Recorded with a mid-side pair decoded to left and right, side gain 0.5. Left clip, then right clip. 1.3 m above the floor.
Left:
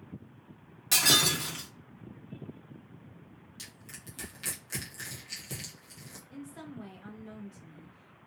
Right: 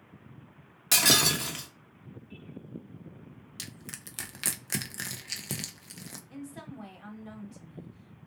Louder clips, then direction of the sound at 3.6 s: Right 4 dB; 55° right.